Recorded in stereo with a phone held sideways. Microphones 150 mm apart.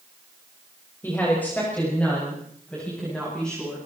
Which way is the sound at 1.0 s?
15° left (ahead or behind).